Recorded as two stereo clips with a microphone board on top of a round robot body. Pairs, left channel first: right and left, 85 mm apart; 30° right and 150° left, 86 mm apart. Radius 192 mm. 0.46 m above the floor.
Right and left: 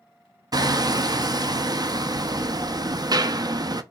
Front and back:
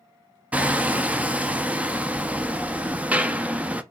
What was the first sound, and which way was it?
Hammering, 80° left.